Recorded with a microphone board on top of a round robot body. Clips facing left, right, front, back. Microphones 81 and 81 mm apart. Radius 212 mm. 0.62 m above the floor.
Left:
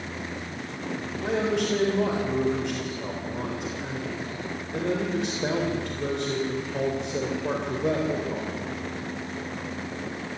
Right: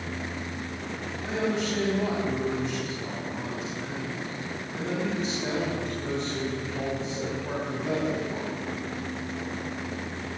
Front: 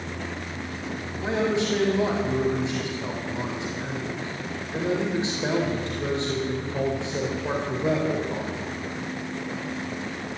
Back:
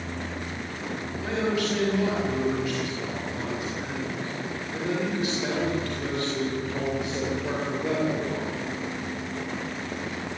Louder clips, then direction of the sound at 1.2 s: Left 3 dB, front 3 dB; 65° left.